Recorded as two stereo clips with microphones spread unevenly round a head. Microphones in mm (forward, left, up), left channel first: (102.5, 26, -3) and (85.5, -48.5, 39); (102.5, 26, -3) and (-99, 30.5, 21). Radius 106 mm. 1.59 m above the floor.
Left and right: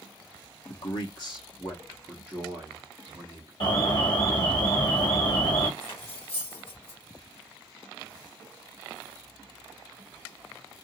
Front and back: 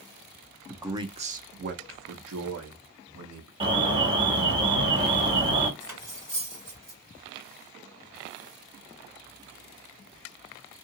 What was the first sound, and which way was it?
A man speaking, 95° left.